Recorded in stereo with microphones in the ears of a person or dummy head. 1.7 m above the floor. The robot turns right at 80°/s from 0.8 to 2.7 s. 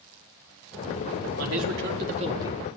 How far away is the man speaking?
About 4.5 m.